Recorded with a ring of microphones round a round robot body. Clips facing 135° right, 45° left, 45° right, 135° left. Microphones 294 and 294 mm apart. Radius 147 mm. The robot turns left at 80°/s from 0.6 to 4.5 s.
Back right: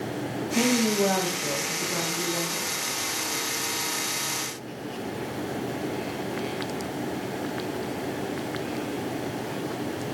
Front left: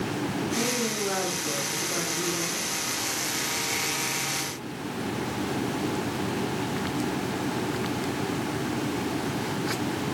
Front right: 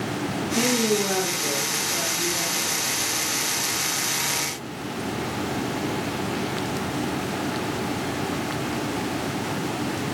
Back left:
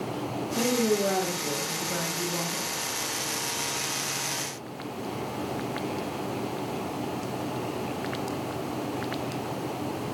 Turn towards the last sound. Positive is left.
turn(degrees=-50)